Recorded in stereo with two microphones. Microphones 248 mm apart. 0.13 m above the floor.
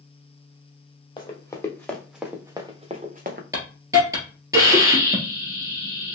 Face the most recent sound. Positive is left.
turn(degrees=-15)  # may be behind; listen again after turning